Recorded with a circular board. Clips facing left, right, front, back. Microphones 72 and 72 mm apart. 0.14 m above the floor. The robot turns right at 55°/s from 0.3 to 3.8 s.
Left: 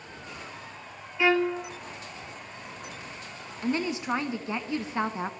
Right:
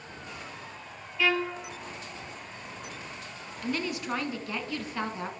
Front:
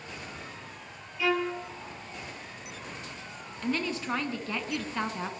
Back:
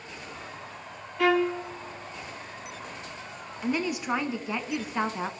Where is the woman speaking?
115° left, 1.2 m; by 5.3 s 125° left, 1.2 m.